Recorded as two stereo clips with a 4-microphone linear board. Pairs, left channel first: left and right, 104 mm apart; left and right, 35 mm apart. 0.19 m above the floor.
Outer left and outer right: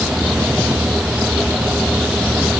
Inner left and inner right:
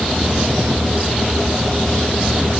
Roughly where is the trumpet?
No trumpet in this recording.